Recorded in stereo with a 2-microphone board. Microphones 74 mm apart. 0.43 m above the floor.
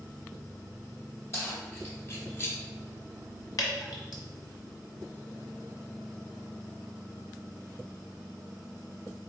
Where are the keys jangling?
35° left (ahead or behind), 1.8 m.